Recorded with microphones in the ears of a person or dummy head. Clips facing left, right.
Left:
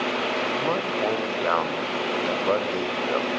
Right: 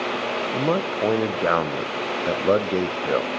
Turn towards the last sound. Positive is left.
turn(degrees=-30)  # may be behind; listen again after turning